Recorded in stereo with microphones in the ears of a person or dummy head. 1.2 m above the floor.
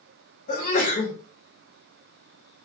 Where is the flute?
No flute in this recording.